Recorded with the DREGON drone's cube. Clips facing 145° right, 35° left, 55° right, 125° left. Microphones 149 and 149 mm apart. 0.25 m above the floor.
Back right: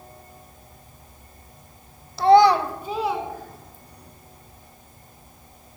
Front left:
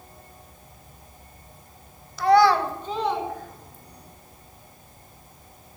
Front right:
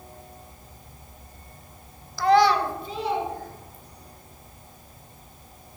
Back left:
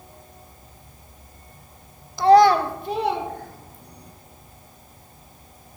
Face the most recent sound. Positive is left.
turn(degrees=125)